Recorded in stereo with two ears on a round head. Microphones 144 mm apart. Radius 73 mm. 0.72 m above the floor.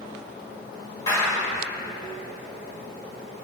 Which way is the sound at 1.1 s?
25° left (ahead or behind).